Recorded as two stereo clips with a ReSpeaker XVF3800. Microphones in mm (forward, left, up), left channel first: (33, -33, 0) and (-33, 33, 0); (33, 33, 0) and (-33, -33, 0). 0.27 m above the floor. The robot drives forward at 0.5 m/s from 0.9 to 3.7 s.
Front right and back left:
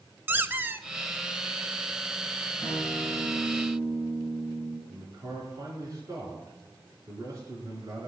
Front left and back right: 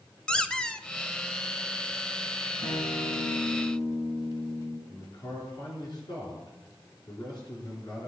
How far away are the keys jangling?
I don't hear keys jangling.